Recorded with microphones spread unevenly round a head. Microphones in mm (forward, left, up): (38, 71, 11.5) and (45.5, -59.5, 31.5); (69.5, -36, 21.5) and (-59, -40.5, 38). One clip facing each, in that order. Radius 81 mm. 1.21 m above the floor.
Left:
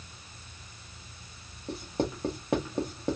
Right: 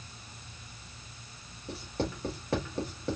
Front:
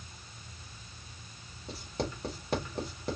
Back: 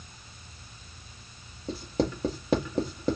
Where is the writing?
170° left, 1.3 m.